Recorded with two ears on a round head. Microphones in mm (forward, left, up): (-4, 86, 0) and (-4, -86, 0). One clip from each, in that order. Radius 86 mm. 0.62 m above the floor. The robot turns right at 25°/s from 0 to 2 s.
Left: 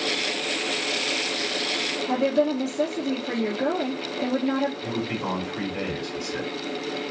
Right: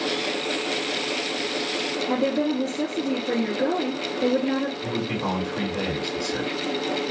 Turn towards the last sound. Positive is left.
turn(degrees=25)  # may be behind; listen again after turning